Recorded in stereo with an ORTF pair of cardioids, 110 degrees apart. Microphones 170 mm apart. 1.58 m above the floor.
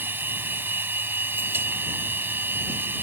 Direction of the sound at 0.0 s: 10° right.